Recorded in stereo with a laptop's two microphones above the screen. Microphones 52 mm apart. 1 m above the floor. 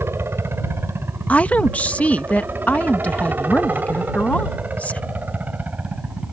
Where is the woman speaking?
30° left (ahead or behind).